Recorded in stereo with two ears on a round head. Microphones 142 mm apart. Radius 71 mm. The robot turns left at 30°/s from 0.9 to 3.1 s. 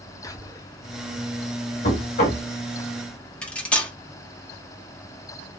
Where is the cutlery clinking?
5° left (ahead or behind), 0.5 m.